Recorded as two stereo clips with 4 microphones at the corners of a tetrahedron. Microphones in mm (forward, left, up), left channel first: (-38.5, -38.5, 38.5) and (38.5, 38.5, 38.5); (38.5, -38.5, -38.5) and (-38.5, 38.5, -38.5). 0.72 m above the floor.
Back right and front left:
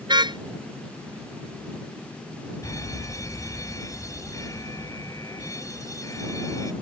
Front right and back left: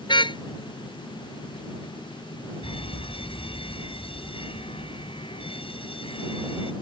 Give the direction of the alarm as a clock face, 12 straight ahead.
3 o'clock.